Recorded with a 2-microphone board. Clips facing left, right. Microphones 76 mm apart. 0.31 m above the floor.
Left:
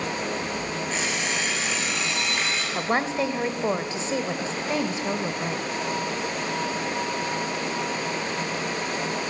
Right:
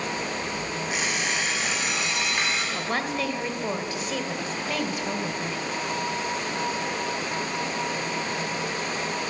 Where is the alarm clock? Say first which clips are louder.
Right 1 dB; 15° right (ahead or behind), 8 m.